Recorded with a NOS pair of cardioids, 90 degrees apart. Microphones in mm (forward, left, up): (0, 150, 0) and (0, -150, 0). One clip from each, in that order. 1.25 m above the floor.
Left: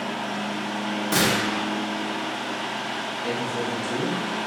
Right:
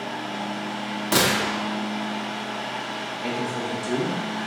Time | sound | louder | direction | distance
0.0 | a fan | left 1 dB | 60° left | 1.0 m
1.1 | a gunshot | right 2 dB | 30° right | 1.2 m
3.2 | a man speaking | even | 45° right | 1.3 m